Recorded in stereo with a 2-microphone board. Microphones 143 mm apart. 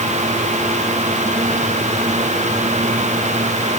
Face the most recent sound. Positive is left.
No sound to turn to.